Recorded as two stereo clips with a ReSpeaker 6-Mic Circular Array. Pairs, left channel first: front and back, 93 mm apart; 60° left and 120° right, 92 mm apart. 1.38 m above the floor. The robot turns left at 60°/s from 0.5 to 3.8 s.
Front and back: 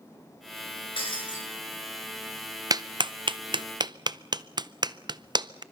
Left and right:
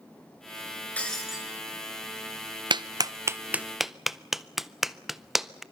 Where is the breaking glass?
15° right, 6.5 m; by 1.4 s 45° right, 6.5 m.